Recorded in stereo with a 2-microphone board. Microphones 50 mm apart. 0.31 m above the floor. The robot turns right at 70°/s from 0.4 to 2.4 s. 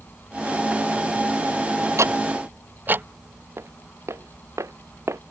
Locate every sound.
2.0 s ticking: 70° right (ahead or behind); by 3.1 s 40° right (ahead or behind)
3.6 s footsteps: 55° right (ahead or behind); by 5.2 s 65° right (ahead or behind)